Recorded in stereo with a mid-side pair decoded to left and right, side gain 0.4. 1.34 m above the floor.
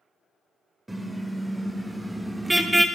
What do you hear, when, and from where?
0.9 s a car horn: 20° right, 3 m